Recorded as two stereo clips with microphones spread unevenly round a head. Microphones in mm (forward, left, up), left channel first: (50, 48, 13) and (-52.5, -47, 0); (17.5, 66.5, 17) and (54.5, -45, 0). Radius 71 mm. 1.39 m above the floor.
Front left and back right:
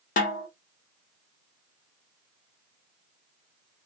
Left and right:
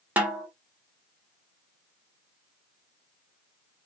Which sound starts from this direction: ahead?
A snare drum, at 0.2 s.